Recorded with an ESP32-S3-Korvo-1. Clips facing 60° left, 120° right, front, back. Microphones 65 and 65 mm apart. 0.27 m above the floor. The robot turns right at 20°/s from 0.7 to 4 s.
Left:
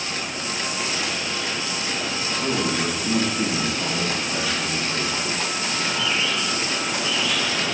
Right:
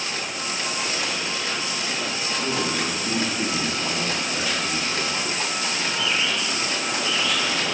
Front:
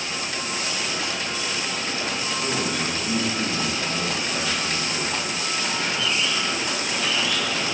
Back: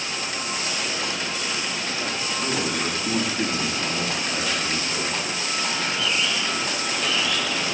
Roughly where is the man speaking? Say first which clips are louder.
Left 2 dB, back 1 dB; left.